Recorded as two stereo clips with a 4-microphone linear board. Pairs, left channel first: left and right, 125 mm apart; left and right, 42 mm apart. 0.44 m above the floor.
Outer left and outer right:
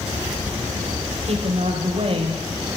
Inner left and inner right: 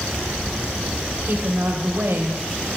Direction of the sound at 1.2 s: 55° right (ahead or behind).